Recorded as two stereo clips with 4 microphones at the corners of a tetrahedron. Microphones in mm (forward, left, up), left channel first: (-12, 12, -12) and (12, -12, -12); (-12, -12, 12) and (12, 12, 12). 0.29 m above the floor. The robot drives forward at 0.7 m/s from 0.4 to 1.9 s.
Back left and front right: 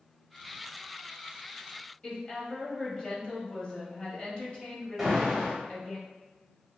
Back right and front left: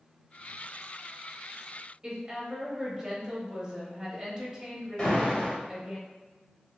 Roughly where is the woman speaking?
Left.